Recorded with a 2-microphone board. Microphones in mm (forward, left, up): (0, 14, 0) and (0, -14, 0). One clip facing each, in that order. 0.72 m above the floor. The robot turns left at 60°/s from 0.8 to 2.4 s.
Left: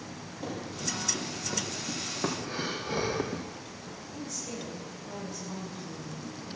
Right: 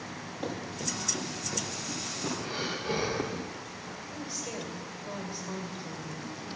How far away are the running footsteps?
About 4.5 m.